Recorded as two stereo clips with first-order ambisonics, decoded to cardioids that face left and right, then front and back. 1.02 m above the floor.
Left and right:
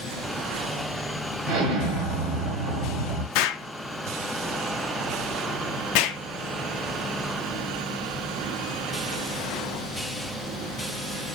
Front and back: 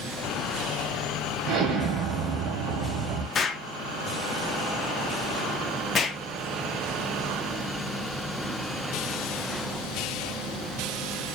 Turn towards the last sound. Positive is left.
turn(degrees=70)